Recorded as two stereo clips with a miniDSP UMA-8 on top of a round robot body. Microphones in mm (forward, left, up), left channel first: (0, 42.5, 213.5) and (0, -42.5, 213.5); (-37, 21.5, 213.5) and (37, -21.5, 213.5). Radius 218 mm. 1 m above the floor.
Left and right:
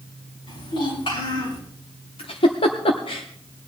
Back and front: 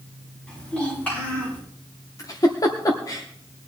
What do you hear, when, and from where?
0.5 s a child speaking: 70° left, 6.5 m; by 1.6 s 80° left, 8 m
2.2 s a giggle: 100° left, 0.8 m